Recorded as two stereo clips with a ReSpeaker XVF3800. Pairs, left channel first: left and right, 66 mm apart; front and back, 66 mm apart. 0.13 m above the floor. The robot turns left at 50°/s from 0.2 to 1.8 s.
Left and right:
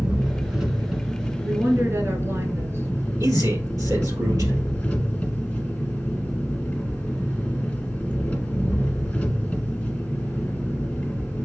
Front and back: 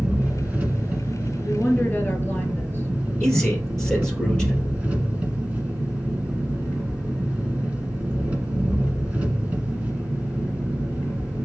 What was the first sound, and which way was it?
An engine running, 140° right.